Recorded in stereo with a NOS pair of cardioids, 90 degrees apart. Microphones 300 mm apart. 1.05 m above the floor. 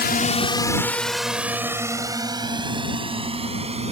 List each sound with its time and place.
0.0 s a drone: 35° left; by 3.9 s 20° right